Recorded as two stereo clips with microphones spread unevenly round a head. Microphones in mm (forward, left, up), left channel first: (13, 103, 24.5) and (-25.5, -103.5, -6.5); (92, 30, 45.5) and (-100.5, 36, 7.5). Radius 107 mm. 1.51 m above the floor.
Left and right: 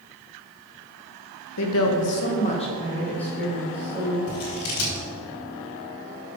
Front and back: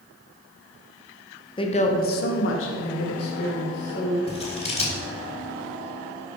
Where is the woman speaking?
65° left, 1.9 m; by 4.2 s 20° right, 3.5 m.